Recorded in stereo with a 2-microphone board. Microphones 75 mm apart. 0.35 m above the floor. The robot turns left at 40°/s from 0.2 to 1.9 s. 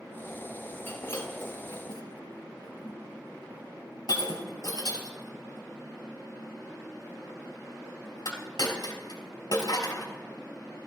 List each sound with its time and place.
0.9 s breaking glass: 30° left (ahead or behind), 4 m; by 10.1 s 70° left (ahead or behind), 4 m